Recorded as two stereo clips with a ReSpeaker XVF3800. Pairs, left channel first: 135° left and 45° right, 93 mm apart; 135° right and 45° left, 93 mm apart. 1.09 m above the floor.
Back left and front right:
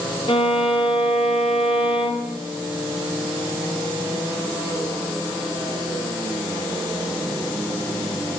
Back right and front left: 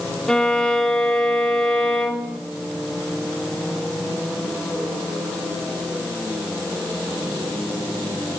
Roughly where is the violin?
Behind left.